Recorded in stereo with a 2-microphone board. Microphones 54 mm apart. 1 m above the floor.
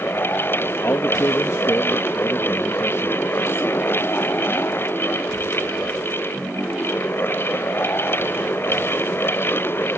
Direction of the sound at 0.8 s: 60° left (ahead or behind).